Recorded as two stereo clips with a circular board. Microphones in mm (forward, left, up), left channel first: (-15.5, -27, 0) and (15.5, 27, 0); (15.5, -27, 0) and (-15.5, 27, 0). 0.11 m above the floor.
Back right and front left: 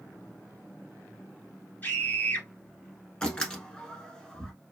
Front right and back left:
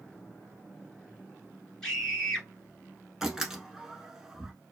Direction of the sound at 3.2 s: 170° right.